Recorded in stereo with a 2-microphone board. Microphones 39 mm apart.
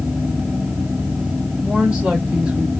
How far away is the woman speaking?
About 1.7 m.